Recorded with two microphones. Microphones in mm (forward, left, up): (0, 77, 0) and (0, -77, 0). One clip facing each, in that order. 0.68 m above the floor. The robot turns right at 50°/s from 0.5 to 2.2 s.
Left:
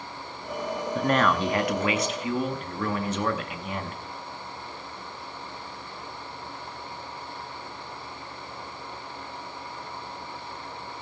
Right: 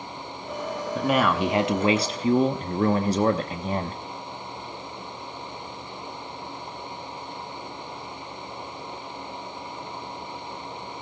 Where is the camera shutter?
No camera shutter in this recording.